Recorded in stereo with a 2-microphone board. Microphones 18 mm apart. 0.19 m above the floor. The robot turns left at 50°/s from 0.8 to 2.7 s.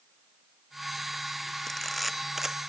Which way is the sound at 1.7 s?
20° left (ahead or behind).